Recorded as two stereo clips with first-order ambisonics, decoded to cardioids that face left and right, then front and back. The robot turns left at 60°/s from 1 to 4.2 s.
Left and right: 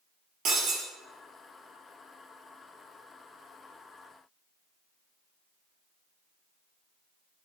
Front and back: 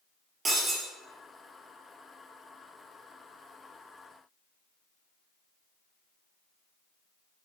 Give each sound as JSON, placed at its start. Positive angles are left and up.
{"t": 0.5, "sound": "breaking glass", "azimuth_deg": -120, "distance_m": 1.1}